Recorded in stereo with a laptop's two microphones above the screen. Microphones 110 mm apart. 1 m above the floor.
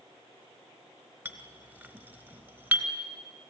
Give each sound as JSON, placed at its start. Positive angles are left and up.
{"t": 1.2, "sound": "a clink", "side_deg": -20, "distance_m": 2.5}